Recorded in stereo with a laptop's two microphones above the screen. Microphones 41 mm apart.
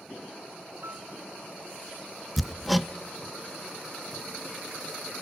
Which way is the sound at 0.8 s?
75° right (ahead or behind).